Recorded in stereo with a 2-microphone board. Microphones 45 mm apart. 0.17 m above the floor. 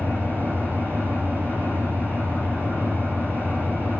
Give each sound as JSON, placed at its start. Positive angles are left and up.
{"t": 0.0, "sound": "an engine running", "side_deg": -50, "distance_m": 5.0}